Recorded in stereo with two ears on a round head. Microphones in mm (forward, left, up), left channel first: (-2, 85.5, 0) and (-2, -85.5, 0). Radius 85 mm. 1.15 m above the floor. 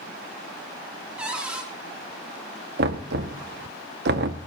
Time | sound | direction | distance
1.2 | a cupboard door | 5° right (ahead or behind) | 3.5 m
2.8 | knocking | 55° right (ahead or behind) | 1.4 m